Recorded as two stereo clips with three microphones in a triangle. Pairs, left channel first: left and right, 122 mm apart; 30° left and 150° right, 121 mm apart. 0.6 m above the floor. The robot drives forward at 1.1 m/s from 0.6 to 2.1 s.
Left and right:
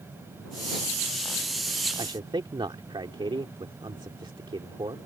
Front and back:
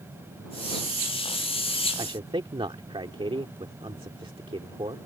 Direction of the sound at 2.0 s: 120° right.